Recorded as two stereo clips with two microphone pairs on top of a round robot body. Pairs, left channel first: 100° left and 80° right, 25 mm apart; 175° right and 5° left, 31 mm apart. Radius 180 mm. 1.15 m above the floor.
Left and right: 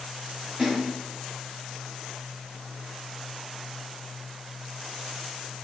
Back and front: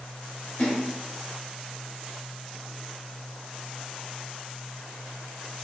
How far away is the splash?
About 1.6 m.